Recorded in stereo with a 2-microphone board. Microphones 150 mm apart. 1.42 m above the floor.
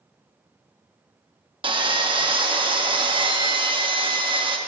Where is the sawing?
35° right (ahead or behind), 0.6 m.